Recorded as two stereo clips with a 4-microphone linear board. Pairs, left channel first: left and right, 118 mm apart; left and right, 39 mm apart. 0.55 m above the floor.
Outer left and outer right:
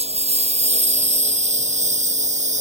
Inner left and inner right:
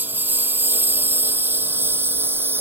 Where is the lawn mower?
65° right (ahead or behind); by 2.6 s 85° right.